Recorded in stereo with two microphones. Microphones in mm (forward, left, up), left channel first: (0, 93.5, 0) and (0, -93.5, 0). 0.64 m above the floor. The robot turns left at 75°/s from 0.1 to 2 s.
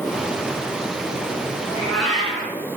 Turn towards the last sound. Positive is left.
turn(degrees=0)  # may be behind; listen again after turning